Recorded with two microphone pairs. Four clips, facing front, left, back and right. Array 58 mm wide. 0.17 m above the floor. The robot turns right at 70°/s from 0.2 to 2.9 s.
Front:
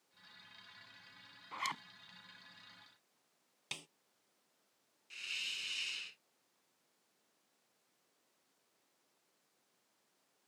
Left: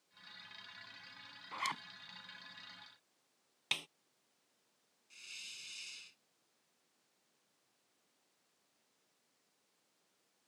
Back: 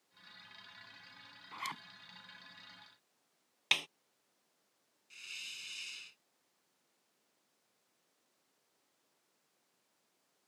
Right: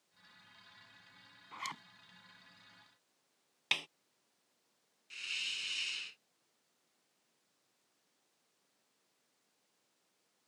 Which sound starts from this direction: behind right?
A snare drum, at 3.7 s.